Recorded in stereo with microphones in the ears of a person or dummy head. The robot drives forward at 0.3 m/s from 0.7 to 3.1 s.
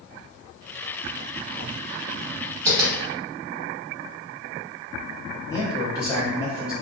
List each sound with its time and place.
2.7 s tapping: 20° right (ahead or behind), 1.0 m
5.5 s a man speaking: 20° left (ahead or behind), 1.0 m